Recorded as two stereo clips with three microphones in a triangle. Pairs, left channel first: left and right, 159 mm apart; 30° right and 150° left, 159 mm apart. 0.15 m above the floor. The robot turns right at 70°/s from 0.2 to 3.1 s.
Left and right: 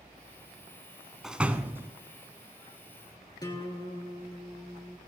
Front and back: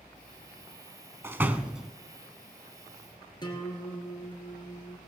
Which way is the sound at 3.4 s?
30° left.